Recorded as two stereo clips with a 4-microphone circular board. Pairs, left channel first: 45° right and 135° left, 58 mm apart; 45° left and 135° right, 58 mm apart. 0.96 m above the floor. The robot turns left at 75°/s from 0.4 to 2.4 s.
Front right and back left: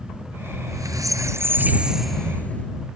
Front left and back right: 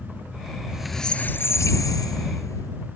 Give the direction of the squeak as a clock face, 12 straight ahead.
7 o'clock.